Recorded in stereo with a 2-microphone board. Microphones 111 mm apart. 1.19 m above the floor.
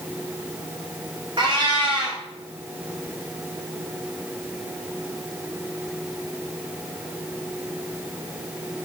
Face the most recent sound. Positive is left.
turn(degrees=-45)  # may be behind; listen again after turning